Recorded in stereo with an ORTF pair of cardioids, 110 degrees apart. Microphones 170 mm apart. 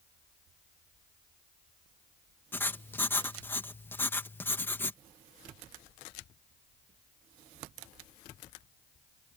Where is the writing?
10° left.